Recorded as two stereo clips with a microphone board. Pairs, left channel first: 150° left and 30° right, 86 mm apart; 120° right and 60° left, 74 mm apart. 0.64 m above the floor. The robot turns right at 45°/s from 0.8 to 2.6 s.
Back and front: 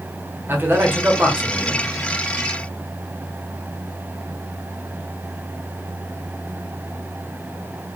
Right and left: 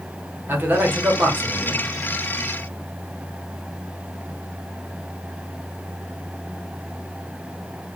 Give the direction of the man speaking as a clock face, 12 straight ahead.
11 o'clock.